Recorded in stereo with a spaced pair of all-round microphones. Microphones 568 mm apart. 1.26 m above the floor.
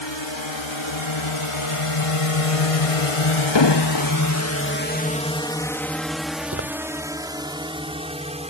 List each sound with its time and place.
0.0 s a drone: 50° left (ahead or behind); by 8.5 s 10° right (ahead or behind)
3.5 s an explosion: 50° left (ahead or behind)
6.5 s footsteps: 25° right (ahead or behind)